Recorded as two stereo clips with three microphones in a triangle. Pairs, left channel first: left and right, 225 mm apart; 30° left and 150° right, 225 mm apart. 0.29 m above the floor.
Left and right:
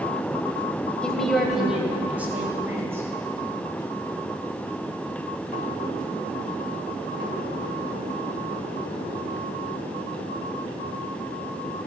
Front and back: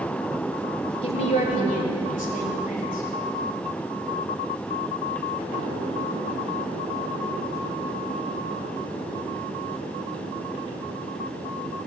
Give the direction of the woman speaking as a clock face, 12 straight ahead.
12 o'clock.